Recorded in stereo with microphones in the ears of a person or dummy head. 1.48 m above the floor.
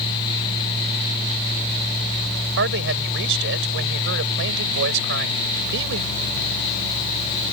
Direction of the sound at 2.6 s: 65° right (ahead or behind).